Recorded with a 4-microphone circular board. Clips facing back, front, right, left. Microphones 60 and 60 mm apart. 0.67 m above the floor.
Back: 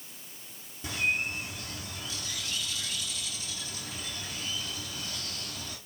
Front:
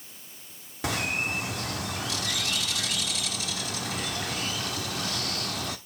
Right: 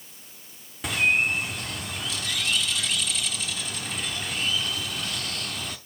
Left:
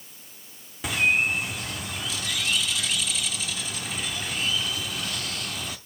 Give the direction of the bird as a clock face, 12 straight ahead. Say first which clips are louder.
Front 2 dB, even; 12 o'clock.